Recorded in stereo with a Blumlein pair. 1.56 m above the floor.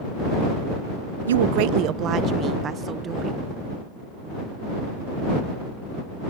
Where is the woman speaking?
65° right; by 3.5 s 20° right.